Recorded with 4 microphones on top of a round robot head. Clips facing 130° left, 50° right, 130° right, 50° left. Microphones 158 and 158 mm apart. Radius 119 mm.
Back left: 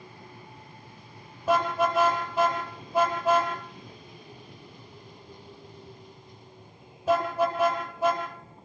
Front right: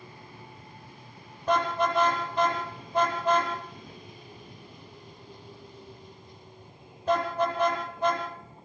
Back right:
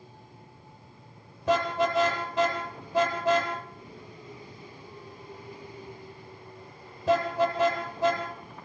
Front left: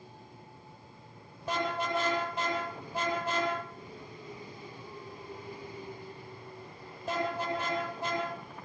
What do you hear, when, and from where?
1.5 s a car horn: 145° right, 9.5 m